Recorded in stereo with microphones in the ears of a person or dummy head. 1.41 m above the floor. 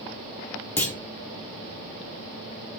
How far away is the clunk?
About 1.3 m.